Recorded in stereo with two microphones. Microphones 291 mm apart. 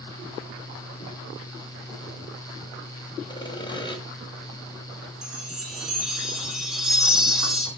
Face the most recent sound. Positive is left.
turn(degrees=0)  # may be behind; listen again after turning